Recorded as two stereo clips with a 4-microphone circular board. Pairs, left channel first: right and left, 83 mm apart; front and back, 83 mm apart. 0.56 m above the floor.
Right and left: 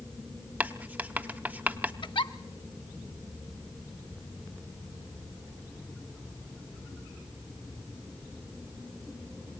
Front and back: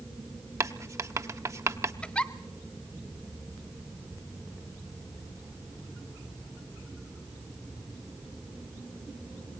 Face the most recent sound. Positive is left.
turn(degrees=-75)